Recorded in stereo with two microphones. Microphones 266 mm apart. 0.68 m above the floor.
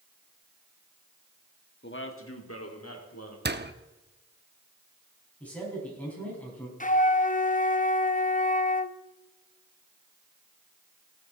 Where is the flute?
30° left (ahead or behind), 0.6 m.